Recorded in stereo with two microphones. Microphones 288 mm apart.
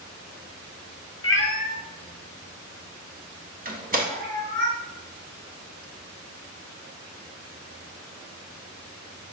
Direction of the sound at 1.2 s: 45° left (ahead or behind).